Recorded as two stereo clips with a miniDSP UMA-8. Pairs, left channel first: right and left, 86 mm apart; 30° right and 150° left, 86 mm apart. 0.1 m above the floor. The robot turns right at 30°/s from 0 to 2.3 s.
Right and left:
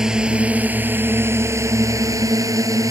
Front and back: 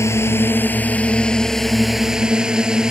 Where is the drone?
10° left; by 2.9 s 70° left.